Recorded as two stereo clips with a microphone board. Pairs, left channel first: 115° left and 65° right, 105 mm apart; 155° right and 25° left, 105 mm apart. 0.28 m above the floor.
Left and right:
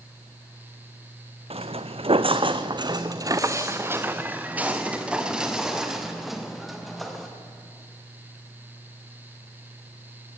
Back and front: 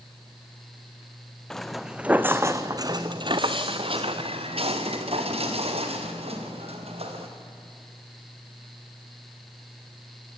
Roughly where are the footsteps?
Right.